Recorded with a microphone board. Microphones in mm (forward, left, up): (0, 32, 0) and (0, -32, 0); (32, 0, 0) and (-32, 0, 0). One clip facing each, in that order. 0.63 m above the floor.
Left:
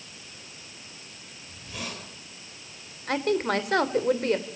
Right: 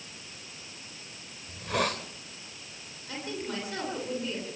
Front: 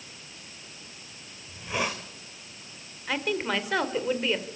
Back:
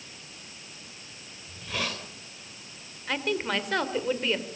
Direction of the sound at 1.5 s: 70° right.